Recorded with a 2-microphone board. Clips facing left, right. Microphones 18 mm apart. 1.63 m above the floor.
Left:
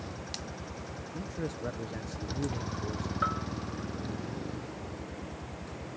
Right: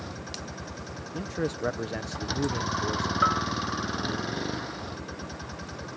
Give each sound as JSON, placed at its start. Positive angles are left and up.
{"t": 0.0, "sound": "a vehicle", "side_deg": -30}
{"t": 1.1, "sound": "a man speaking", "side_deg": -35}
{"t": 3.2, "sound": "a bell", "side_deg": -25}